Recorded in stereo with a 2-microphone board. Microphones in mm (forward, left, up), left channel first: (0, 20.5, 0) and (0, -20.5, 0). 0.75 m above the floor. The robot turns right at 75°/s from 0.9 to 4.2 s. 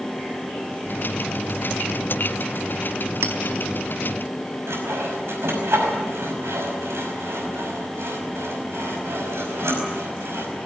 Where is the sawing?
80° right, 5.5 m.